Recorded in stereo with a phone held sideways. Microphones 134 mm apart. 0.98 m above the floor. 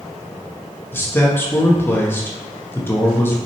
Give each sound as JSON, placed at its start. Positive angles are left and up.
{"t": 0.9, "sound": "a man speaking", "side_deg": 15, "distance_m": 1.3}